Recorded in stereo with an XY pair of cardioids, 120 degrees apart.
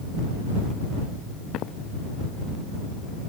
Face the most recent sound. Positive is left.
turn(degrees=70)